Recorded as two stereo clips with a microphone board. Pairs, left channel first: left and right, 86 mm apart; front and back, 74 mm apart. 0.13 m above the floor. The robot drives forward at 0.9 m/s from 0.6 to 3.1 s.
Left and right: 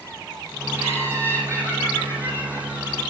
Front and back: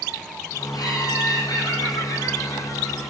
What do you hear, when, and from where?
0.7 s laughter: 25° left, 6 m; by 3.0 s 35° left, 4 m